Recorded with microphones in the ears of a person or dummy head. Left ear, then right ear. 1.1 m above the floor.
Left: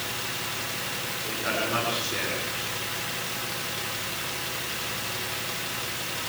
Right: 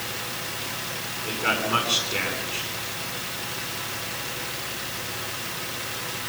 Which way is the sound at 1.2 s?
90° right.